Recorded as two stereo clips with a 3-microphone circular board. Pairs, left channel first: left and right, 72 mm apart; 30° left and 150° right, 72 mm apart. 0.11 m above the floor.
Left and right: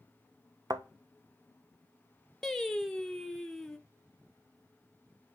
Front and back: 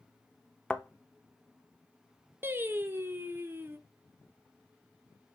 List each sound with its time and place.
0.7 s a thud: 55° right, 0.5 m
2.4 s singing: 170° left, 0.5 m